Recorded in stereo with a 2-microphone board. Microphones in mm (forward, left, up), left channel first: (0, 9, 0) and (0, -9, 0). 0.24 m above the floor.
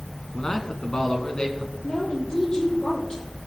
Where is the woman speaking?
50° left (ahead or behind), 8.5 m.